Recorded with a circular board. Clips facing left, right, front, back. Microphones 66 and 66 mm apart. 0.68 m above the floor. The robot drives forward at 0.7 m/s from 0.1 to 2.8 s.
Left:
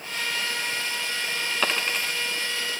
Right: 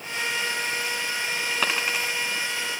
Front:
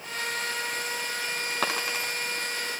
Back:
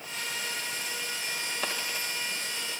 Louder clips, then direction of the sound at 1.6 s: Even, front 7 dB; 10° right.